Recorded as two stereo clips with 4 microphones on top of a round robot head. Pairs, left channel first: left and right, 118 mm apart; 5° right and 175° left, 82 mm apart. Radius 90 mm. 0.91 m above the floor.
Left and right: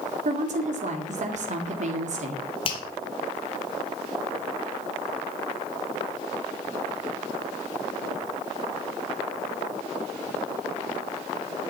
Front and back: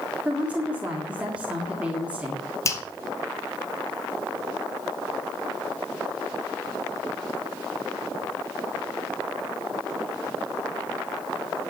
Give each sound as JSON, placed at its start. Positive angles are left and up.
{"t": 0.2, "sound": "a woman speaking", "azimuth_deg": -110, "distance_m": 2.0}
{"t": 2.6, "sound": "a finger snap", "azimuth_deg": 45, "distance_m": 2.0}